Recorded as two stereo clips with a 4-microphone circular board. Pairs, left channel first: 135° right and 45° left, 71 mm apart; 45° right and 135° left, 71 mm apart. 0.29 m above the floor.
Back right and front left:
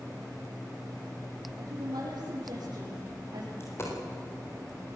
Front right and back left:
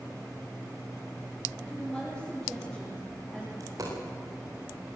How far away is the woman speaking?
About 7 m.